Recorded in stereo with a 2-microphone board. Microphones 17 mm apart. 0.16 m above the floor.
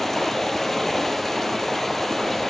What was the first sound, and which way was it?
Running water, 15° left (ahead or behind).